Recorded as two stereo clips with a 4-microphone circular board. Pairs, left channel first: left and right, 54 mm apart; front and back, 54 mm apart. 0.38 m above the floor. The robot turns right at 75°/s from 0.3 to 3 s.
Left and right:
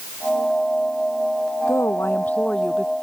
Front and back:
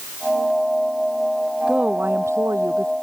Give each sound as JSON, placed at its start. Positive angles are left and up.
{"t": 1.7, "sound": "a woman speaking", "azimuth_deg": 105}